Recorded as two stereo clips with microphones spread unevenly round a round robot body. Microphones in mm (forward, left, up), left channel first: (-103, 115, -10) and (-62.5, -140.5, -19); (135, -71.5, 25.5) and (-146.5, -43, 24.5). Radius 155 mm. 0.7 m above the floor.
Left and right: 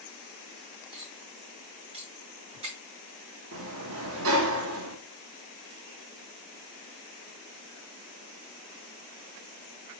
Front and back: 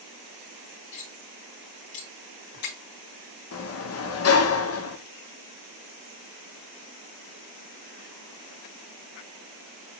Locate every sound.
0.9 s cutlery clinking: 5° right, 1.8 m
3.5 s a sliding door: 40° right, 0.8 m